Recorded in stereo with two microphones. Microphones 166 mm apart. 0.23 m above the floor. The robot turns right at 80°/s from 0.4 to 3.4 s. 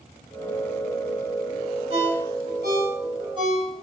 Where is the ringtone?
35° right (ahead or behind), 4.5 m; by 3.8 s 25° right (ahead or behind), 4.5 m.